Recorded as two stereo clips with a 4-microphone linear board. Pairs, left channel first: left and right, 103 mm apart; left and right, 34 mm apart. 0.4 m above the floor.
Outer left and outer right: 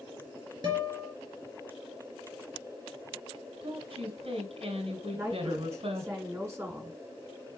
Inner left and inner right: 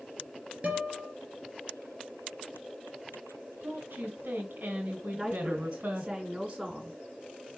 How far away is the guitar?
About 4 m.